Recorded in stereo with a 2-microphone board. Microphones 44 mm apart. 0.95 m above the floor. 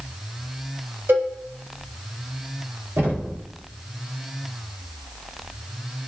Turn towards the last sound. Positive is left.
turn(degrees=-65)  # may be behind; listen again after turning